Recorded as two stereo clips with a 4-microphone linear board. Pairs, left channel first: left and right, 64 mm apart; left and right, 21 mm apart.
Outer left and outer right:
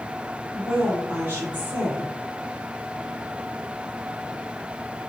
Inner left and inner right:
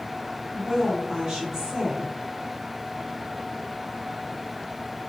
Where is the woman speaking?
30° right (ahead or behind), 1.6 m.